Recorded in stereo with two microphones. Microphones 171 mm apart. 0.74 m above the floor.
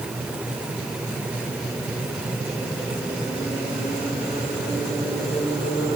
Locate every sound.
Only background noise.